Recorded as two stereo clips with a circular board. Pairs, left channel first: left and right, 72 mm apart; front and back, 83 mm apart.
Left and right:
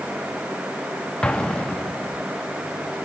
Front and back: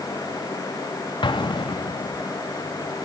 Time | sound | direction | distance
1.2 | an explosion | 15° left | 0.6 m